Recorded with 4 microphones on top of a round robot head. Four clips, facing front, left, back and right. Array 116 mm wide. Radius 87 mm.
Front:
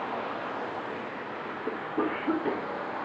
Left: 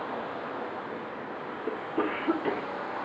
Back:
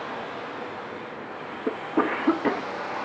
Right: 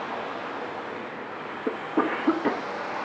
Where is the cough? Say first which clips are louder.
Right 5 dB, back 6 dB; 140° right, 1.7 m.